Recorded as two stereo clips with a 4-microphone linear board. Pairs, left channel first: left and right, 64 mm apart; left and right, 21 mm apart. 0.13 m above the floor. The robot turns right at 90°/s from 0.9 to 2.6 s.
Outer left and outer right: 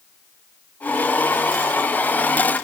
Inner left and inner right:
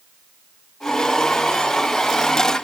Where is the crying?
I don't hear crying.